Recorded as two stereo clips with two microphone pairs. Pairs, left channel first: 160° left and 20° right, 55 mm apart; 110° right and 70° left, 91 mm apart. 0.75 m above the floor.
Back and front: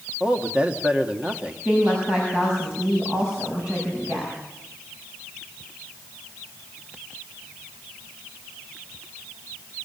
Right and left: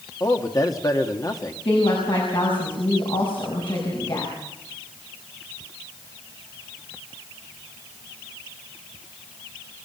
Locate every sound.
0.2 s a man speaking: 80° right, 1.7 m
1.6 s a woman speaking: 90° right, 6 m